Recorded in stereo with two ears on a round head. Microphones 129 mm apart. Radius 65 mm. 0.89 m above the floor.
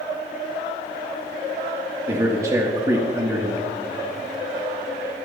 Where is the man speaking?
25° right (ahead or behind), 1.3 m.